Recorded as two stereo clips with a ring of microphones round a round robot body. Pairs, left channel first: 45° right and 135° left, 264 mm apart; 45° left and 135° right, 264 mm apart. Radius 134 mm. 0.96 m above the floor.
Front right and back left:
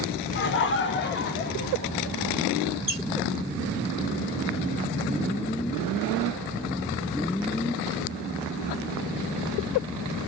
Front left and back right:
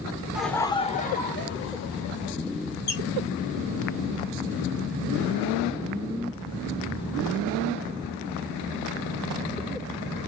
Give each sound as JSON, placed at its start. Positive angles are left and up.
{"t": 0.3, "sound": "laughter", "azimuth_deg": -50, "distance_m": 0.7}
{"t": 2.9, "sound": "a squeak", "azimuth_deg": 60, "distance_m": 2.5}